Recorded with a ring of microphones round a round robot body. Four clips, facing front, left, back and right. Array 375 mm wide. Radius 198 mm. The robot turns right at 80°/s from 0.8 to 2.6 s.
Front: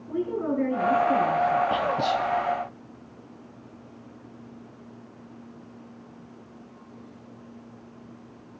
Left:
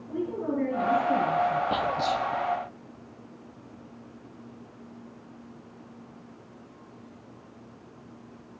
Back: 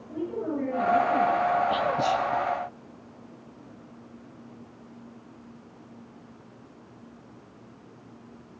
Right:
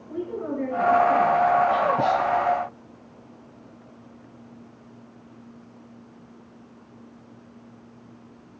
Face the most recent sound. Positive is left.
turn(degrees=140)